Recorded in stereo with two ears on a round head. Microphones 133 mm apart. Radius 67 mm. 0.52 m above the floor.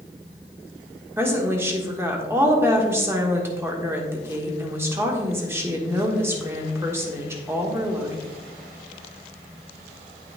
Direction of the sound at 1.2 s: 15° right (ahead or behind).